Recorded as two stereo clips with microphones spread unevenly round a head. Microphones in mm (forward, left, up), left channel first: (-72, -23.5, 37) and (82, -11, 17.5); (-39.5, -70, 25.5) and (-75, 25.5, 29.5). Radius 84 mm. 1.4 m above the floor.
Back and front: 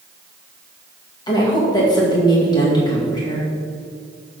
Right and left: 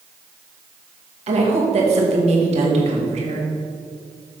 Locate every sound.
1.3 s a woman speaking: 120° left, 2 m